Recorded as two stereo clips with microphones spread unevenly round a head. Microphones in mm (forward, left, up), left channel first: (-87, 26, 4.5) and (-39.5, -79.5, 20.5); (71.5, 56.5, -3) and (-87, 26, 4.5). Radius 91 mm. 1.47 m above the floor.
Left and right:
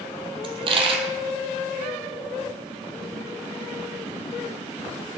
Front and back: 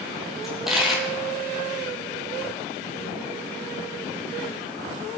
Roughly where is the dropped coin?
Right.